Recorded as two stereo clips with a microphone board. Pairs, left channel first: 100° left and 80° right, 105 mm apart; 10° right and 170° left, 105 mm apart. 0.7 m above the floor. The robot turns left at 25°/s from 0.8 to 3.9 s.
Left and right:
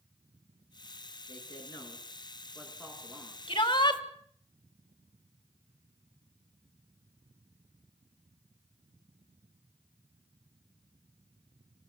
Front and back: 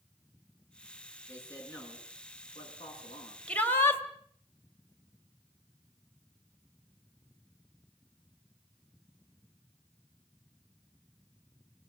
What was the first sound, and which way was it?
A man speaking, 55° left.